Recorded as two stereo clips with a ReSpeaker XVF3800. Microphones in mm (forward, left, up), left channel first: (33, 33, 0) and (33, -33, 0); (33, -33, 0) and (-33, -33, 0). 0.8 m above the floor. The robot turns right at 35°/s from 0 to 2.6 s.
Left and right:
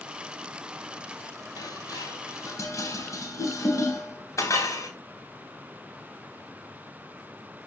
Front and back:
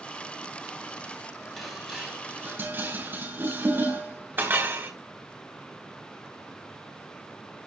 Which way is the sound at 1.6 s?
85° left.